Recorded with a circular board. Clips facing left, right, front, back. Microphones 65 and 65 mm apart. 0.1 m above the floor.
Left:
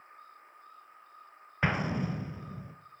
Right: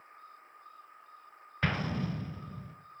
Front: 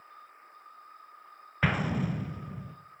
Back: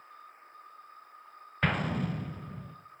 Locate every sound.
1.6 s an explosion: 70° left, 0.6 m